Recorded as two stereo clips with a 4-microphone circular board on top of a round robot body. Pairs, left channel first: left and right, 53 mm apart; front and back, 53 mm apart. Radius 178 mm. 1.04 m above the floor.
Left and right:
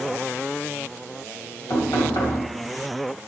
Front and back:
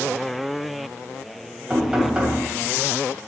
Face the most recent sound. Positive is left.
turn(degrees=100)